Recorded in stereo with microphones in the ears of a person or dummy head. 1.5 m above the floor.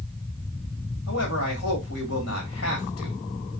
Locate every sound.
1.1 s a man speaking: 80° left, 2.5 m